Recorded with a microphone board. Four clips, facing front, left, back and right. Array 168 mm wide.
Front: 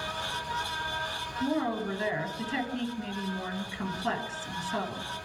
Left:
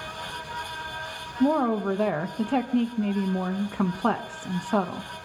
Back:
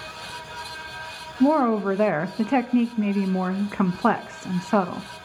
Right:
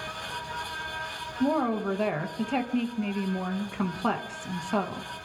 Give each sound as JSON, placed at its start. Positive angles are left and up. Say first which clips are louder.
{"t": 1.4, "sound": "a woman speaking", "louder": "left 3 dB, back 11 dB", "azimuth_deg": 165, "distance_m": 1.4}